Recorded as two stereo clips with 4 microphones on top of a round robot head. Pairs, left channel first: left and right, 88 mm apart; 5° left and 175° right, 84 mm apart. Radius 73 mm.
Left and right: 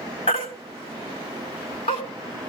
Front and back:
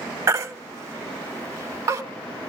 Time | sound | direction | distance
0.3 | a baby crying | 130° left | 1.6 m